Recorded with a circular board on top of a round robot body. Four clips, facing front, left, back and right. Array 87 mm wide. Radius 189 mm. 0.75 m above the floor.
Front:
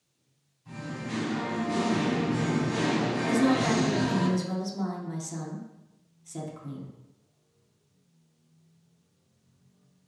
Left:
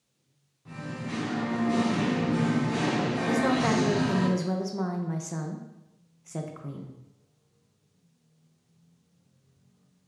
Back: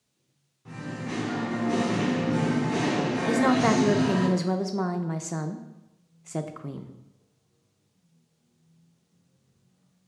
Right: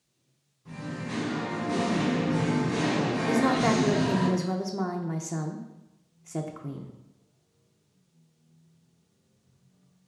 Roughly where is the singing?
Behind.